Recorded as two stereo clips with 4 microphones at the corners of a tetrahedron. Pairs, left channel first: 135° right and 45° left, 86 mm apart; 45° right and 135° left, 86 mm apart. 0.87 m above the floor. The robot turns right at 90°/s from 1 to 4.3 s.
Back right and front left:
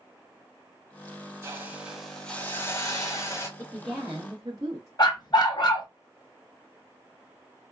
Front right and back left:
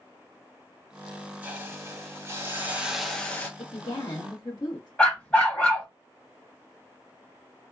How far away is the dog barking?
About 1.0 m.